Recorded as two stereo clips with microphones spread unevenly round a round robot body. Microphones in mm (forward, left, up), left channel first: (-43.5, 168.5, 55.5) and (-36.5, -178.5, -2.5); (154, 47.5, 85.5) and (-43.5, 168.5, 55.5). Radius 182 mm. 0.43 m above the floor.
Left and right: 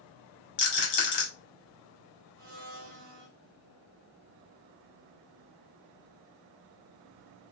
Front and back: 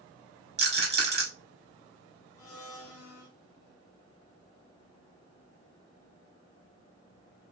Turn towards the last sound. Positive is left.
turn(degrees=-50)